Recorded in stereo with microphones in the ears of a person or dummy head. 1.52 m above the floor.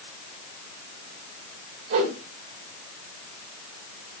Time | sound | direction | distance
1.9 | a whoosh | 60° right (ahead or behind) | 2.5 m